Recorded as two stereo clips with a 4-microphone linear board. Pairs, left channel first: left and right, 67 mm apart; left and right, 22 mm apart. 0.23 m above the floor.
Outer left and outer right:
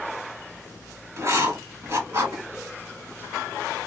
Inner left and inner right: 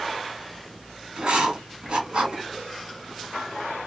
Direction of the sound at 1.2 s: 45° right (ahead or behind).